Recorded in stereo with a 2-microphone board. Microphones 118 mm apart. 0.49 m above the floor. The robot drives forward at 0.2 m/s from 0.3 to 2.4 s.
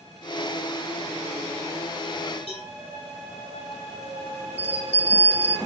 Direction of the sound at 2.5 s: 60° left (ahead or behind).